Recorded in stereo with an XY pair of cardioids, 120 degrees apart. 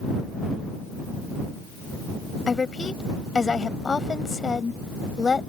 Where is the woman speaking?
25° left.